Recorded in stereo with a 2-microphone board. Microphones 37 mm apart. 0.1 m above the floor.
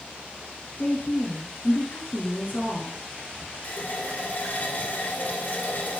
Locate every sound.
0.8 s a woman speaking: 35° left (ahead or behind), 1.3 m
3.6 s a running tap: 45° left (ahead or behind), 1.7 m